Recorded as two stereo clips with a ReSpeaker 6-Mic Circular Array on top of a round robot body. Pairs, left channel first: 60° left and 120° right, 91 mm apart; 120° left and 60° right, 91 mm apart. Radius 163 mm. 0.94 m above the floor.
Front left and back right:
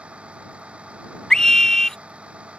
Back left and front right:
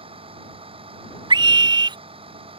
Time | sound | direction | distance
0.0 | a vehicle | 45° right | ?
1.3 | a scream | 25° right | ?